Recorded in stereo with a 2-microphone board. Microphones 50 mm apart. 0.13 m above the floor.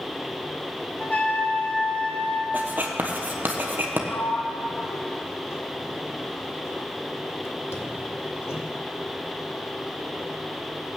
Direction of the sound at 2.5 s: 35° right (ahead or behind).